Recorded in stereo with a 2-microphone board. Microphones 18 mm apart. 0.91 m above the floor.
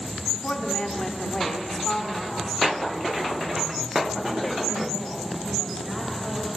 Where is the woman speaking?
45° left (ahead or behind), 3 m; by 6.6 s 30° left (ahead or behind), 5.5 m.